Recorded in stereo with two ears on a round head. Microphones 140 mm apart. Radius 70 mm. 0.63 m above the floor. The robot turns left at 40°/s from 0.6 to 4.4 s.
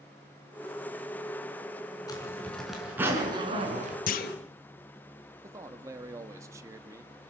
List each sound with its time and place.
2.1 s a zipper: 25° left, 4.5 m; by 4.0 s 50° right, 4.5 m
4.1 s a clunk: 60° left (ahead or behind), 1.3 m; by 4.4 s 70° left (ahead or behind), 1.3 m
5.4 s a man speaking: 20° right (ahead or behind), 1.1 m